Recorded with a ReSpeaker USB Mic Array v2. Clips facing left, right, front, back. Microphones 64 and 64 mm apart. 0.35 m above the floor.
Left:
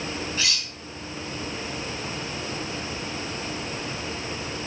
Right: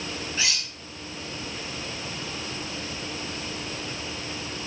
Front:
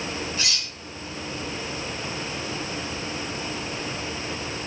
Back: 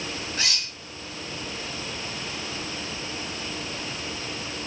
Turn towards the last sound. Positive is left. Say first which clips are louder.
# even, even
turn(degrees=-155)